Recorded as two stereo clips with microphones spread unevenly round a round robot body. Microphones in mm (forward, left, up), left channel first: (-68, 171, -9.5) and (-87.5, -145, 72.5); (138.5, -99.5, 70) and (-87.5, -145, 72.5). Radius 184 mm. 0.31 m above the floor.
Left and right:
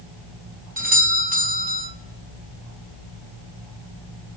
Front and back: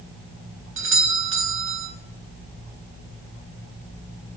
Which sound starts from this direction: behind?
A doorbell, at 0.8 s.